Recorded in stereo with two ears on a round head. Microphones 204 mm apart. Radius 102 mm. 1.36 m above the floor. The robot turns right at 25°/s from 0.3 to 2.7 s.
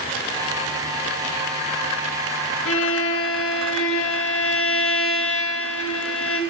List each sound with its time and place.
2.6 s a violin: 55° left (ahead or behind), 2 m; by 6.4 s 60° left (ahead or behind), 2 m